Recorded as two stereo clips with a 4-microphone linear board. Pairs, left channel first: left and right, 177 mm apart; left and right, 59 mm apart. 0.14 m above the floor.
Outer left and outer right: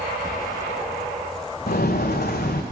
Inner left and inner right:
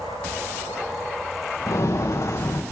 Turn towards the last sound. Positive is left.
turn(degrees=65)  # may be behind; listen again after turning